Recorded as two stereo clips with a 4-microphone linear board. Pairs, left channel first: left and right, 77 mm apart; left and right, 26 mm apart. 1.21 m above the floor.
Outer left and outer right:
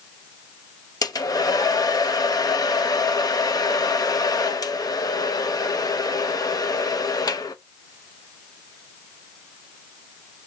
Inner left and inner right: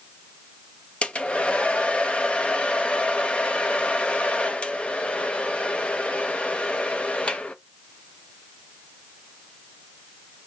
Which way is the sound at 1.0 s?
55° left (ahead or behind).